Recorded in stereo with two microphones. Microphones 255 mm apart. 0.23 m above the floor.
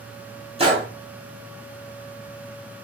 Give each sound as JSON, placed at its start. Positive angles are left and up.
{"t": 0.6, "sound": "a gunshot", "side_deg": -25, "distance_m": 1.2}